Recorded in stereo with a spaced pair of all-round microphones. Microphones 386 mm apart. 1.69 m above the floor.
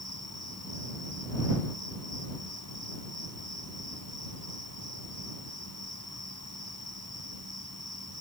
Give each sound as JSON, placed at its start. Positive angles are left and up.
{"t": 0.0, "sound": "an insect", "side_deg": -40}